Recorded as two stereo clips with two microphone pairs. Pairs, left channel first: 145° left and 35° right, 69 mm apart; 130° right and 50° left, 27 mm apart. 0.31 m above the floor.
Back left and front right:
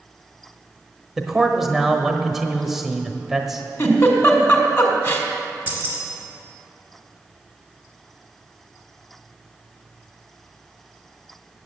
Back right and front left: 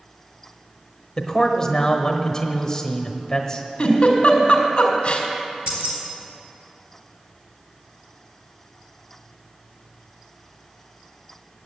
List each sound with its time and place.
1.2 s a man speaking: 110° right, 1.1 m
3.8 s a giggle: 175° right, 2 m
5.7 s keys jangling: 25° left, 2.5 m